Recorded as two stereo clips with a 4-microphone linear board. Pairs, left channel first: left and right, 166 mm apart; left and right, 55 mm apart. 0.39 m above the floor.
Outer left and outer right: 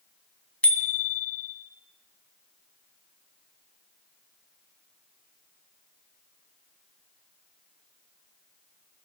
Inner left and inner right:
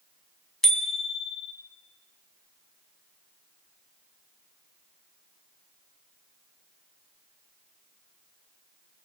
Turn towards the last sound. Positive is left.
turn(degrees=10)  # may be behind; listen again after turning